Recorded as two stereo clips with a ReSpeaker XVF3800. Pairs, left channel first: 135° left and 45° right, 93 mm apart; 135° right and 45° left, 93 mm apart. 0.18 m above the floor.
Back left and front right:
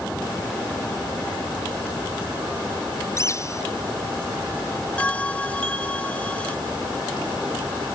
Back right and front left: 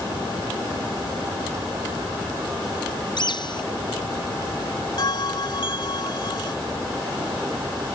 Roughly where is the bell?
Behind right.